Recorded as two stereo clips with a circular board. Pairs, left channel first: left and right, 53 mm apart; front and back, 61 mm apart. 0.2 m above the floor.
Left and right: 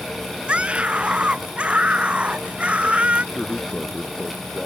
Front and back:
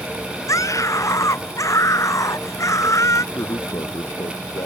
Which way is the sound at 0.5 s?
25° right.